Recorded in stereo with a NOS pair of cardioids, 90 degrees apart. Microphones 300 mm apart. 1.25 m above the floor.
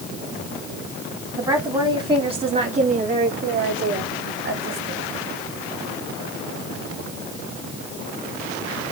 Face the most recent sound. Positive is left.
turn(degrees=-45)